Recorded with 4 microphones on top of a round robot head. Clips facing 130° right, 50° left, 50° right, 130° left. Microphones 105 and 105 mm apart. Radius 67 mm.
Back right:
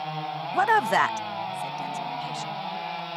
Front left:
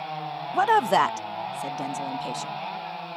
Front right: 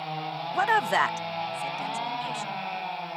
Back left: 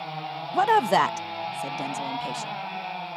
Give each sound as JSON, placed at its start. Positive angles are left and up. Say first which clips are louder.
{"t": 0.5, "sound": "a woman speaking", "louder": "front left 2 dB, back left 4 dB", "azimuth_deg": 125}